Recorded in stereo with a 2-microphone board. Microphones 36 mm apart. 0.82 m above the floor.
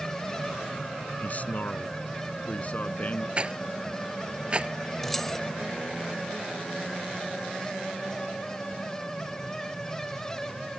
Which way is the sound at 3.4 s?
30° right (ahead or behind).